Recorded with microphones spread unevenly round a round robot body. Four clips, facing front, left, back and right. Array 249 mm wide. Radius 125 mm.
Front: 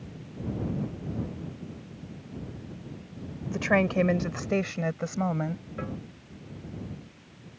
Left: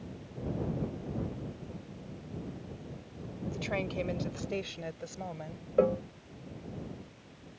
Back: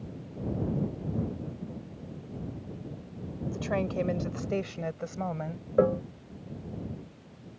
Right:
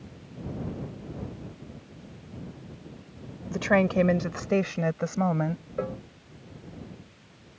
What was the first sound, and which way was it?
A woman speaking, 50° right.